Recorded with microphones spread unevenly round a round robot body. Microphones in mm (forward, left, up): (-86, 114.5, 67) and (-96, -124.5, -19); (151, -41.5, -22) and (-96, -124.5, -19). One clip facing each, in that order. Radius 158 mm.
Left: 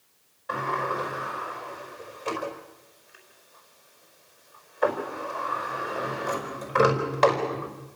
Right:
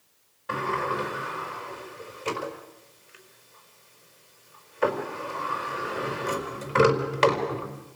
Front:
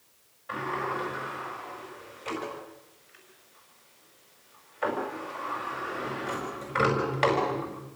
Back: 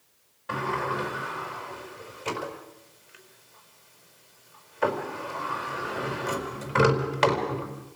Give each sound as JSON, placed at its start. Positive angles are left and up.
{"t": 0.5, "sound": "a sliding door", "azimuth_deg": -135, "distance_m": 5.0}